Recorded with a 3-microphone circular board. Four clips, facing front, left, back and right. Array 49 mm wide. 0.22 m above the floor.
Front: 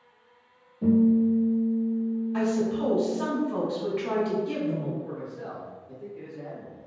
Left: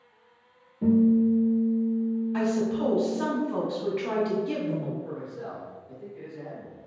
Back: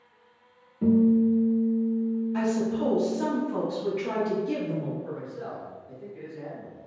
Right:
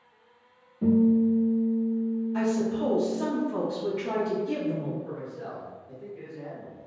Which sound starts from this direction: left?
A woman speaking, at 2.3 s.